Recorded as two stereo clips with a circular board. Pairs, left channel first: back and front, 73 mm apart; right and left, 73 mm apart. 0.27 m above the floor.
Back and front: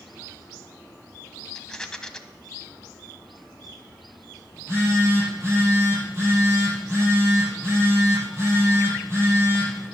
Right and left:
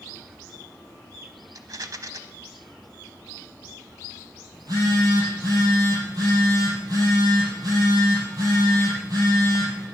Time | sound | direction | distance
1.6 | a rattle | 100° left | 0.8 m
4.5 | a phone buzzing | 55° left | 6.5 m